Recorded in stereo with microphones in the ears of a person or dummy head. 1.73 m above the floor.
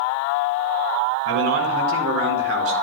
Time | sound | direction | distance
1.2 | a man speaking | 80° right | 3 m